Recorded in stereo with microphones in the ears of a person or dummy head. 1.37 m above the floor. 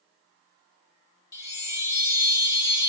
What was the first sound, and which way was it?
A chime, 20° left (ahead or behind).